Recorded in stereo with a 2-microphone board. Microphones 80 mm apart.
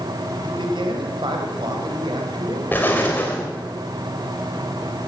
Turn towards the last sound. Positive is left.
turn(degrees=25)  # may be behind; listen again after turning